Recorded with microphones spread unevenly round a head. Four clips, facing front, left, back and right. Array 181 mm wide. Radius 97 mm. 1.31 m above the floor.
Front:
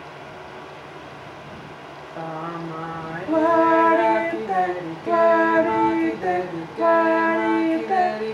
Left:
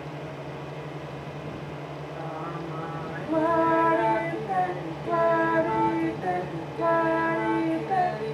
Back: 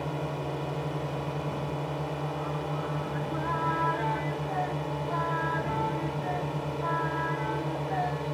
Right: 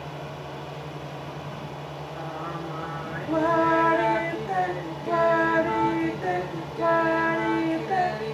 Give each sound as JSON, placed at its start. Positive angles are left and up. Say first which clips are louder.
{"t": 0.0, "sound": "a drone", "louder": "even, back 5 dB", "azimuth_deg": 170}
{"t": 2.2, "sound": "singing", "louder": "right 1 dB, front 3 dB", "azimuth_deg": -5}